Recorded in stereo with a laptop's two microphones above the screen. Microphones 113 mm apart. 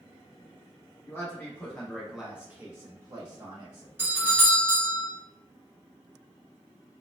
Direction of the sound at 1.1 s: 20° left (ahead or behind).